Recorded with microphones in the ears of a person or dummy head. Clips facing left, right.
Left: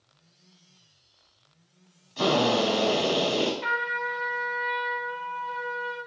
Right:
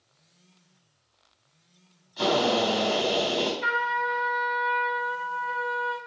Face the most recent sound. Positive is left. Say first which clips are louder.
# right 3 dB
turn(degrees=-10)  # may be behind; listen again after turning